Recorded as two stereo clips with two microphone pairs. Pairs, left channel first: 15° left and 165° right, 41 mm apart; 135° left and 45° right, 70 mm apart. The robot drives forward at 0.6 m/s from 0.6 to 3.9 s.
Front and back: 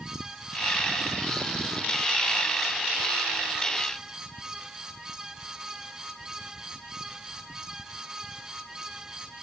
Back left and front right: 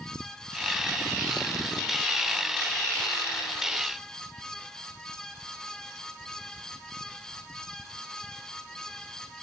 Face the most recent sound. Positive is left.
No sound to turn to.